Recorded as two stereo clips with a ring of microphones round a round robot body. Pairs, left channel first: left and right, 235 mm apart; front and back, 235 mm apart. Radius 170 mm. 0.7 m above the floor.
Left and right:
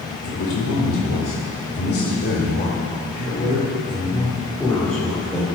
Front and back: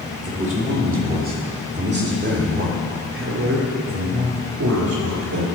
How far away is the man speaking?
About 3 m.